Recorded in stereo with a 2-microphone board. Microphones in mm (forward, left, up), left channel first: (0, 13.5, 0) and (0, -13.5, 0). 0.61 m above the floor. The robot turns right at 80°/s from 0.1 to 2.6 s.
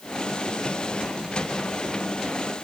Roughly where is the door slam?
No door slam in this recording.